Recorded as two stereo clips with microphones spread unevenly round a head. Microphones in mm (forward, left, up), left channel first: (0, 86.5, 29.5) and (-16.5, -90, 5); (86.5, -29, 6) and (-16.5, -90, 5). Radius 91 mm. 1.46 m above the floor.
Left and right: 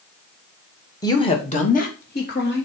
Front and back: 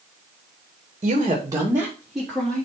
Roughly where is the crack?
I don't hear a crack.